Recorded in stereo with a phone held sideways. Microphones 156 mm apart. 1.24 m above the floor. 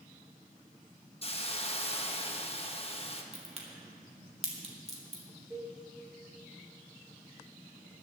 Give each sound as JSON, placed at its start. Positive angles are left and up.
{"t": 1.2, "sound": "a hiss", "side_deg": 40, "distance_m": 1.0}
{"t": 3.3, "sound": "a crack", "side_deg": -45, "distance_m": 2.0}
{"t": 5.5, "sound": "a cowbell", "side_deg": -10, "distance_m": 3.5}